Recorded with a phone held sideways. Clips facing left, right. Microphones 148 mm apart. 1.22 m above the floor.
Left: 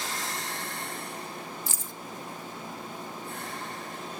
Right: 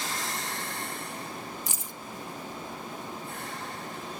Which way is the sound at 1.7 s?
15° right (ahead or behind).